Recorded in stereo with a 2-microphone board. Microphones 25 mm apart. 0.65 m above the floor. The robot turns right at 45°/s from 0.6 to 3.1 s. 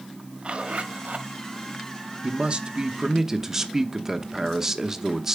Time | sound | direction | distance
0.4 | a zipper | 140° right | 1.1 m
2.2 | a man speaking | 60° right | 0.8 m